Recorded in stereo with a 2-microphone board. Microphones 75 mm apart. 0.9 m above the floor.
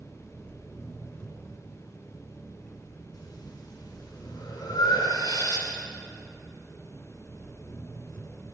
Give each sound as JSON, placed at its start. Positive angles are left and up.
{"t": 0.0, "sound": "an engine running", "side_deg": 20, "distance_m": 5.5}
{"t": 3.1, "sound": "breathing", "side_deg": 65, "distance_m": 4.0}